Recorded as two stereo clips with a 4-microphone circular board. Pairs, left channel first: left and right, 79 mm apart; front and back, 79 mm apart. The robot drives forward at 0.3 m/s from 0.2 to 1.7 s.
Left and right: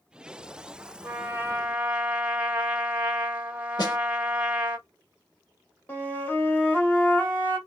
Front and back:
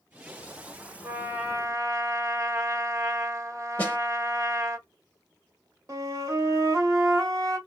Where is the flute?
145° left, 1.3 m.